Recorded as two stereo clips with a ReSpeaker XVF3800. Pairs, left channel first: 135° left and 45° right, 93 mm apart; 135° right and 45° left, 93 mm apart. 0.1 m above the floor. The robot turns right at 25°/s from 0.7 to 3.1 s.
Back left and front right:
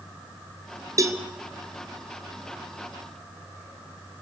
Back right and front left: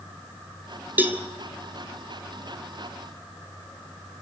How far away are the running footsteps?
I don't hear running footsteps.